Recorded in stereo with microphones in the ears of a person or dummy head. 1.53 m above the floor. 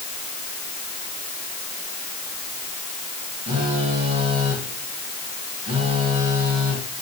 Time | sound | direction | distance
3.5 | a phone buzzing | 30° right (ahead or behind) | 7 m